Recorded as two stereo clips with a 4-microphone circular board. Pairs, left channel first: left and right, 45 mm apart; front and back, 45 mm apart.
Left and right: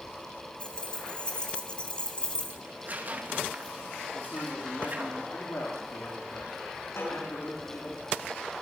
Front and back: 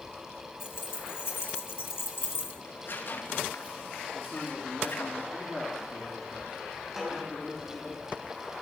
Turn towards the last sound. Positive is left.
turn(degrees=90)